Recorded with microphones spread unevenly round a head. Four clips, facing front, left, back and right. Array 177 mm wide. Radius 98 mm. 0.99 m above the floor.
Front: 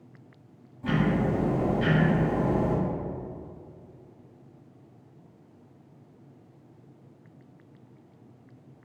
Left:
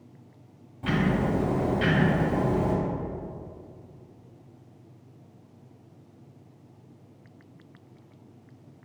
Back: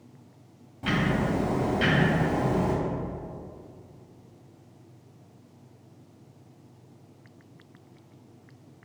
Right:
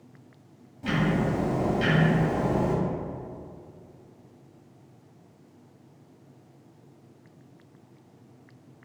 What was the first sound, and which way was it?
Ticking, 175° left.